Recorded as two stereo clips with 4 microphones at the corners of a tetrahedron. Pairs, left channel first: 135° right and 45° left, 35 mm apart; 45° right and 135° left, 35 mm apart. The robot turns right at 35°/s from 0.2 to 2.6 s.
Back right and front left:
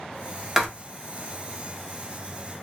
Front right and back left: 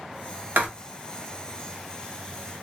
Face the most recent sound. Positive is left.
turn(degrees=-160)